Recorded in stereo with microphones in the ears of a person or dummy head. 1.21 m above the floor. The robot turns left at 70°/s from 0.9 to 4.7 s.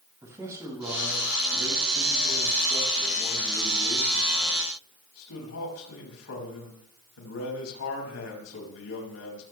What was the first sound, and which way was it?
A man speaking, 10° right.